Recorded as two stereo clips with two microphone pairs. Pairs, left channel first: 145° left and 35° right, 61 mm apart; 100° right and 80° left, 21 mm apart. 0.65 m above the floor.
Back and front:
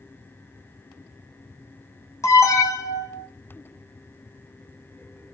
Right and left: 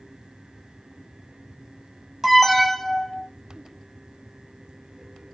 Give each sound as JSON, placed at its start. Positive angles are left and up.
{"t": 2.2, "sound": "an alarm", "azimuth_deg": 165, "distance_m": 0.6}